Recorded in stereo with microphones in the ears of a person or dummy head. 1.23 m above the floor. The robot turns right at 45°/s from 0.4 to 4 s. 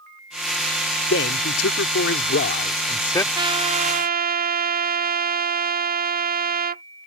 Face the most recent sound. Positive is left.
turn(degrees=-40)  # may be behind; listen again after turning